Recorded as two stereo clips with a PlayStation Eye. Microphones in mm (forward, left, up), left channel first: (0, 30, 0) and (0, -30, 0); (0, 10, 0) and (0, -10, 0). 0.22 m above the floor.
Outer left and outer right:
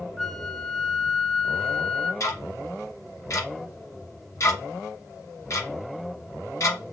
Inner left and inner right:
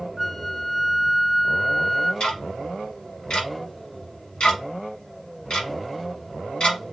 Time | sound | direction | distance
0.2 | a flute | 5° left (ahead or behind) | 0.5 m
2.2 | ticking | 60° left (ahead or behind) | 1.4 m